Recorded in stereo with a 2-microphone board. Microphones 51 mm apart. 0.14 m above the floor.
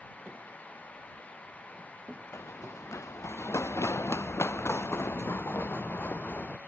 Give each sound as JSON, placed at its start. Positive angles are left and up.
{"t": 2.3, "sound": "running footsteps", "side_deg": 75}